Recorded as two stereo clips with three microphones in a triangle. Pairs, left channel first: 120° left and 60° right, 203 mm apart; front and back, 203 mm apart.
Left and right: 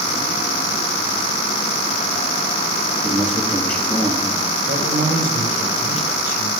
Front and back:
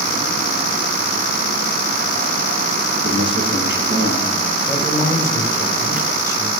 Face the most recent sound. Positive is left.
turn(degrees=-105)